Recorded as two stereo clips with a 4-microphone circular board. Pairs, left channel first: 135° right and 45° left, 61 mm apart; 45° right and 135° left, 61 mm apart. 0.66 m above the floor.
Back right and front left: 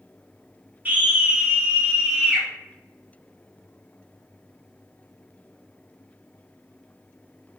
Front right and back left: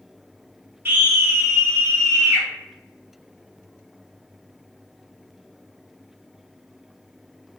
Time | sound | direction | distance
0.8 | a scream | 95° left | 1.5 m